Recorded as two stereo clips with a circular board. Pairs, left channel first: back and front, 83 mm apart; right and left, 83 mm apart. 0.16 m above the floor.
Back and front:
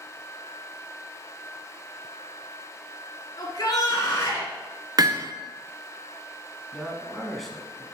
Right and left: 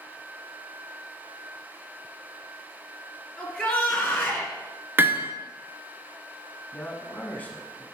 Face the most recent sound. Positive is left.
turn(degrees=-90)